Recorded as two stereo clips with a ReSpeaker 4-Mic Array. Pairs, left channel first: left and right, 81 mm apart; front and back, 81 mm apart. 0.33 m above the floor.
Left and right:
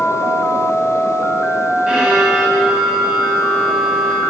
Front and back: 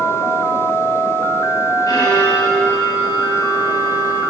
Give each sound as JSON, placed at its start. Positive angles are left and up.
{"t": 1.9, "sound": "a violin", "azimuth_deg": -15, "distance_m": 2.5}